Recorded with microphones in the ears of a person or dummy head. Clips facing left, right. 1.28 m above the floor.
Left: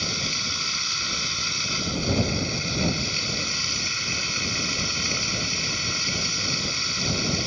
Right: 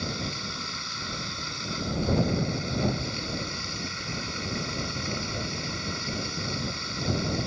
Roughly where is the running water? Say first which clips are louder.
Even; left.